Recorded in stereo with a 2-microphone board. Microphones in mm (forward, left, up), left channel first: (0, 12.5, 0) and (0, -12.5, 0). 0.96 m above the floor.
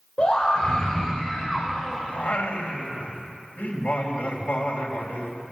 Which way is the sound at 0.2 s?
45° left (ahead or behind).